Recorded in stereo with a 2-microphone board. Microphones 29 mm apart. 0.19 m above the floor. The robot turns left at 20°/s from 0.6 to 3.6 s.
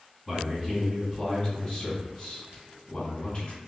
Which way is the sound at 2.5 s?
50° right (ahead or behind).